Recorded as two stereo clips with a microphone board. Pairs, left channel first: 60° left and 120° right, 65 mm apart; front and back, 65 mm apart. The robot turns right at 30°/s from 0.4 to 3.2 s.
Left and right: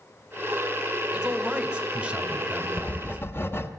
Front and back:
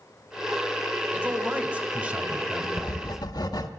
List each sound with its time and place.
1.1 s a man speaking: 175° right, 1.3 m; by 3.2 s 115° right, 1.3 m
2.8 s writing: 5° right, 1.2 m; by 3.7 s 5° left, 1.2 m